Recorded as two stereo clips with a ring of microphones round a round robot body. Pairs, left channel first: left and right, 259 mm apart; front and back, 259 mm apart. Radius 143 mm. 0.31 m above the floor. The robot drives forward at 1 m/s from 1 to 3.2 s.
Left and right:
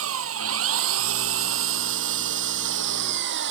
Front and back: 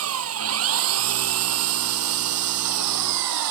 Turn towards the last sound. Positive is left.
turn(degrees=-145)